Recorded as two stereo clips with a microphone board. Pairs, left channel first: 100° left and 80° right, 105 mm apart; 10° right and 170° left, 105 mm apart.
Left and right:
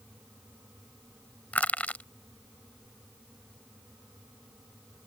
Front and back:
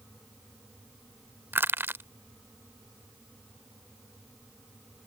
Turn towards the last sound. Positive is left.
turn(degrees=150)